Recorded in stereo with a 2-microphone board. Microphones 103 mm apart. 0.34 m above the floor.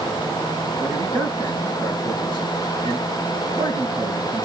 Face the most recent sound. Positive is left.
turn(degrees=-55)  # may be behind; listen again after turning